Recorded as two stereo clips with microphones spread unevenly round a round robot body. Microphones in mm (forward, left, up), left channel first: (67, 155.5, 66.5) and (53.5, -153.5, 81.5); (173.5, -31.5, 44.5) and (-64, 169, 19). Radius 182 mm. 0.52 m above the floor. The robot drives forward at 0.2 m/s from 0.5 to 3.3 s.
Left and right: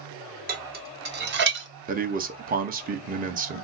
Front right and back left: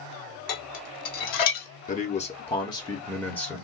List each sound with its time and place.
0.5 s dishes clattering: 30° right, 1.0 m; by 1.7 s 40° right, 0.8 m
1.9 s a man speaking: 75° right, 0.7 m; by 3.6 s 125° right, 0.7 m